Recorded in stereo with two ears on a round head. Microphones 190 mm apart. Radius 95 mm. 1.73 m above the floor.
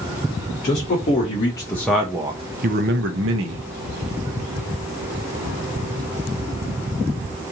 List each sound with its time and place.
0.6 s a man speaking: 35° left (ahead or behind), 1.0 m; by 3.7 s 75° right (ahead or behind), 0.9 m